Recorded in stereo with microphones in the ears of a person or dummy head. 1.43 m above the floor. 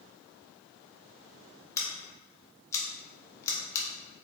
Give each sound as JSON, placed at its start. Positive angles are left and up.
{"t": 1.8, "sound": "scissors", "side_deg": 15, "distance_m": 1.0}